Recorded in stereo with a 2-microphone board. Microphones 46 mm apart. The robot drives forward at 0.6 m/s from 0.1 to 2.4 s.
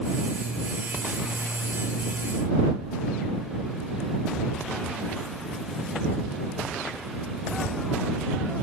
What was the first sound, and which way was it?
Only background noise.